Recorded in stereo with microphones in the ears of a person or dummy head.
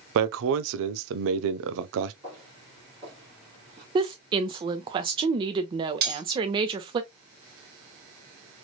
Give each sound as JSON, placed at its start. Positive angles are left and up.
{"t": 0.1, "sound": "a man speaking", "side_deg": -70, "distance_m": 0.5}
{"t": 2.2, "sound": "footsteps", "side_deg": -20, "distance_m": 2.0}
{"t": 4.0, "sound": "a woman speaking", "side_deg": -25, "distance_m": 0.6}
{"t": 6.0, "sound": "cutlery clinking", "side_deg": -45, "distance_m": 1.4}